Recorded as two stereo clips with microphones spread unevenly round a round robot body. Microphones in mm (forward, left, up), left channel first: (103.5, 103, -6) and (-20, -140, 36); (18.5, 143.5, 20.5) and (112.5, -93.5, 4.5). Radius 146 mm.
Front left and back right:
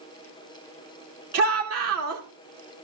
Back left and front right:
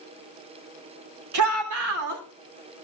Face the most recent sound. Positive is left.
turn(degrees=-85)